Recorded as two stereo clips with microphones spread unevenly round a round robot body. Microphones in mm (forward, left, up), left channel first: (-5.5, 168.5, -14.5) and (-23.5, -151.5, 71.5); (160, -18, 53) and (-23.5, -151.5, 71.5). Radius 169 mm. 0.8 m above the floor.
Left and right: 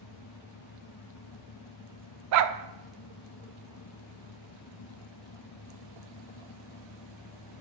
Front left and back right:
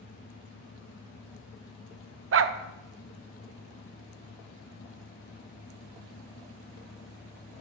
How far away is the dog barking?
About 0.6 m.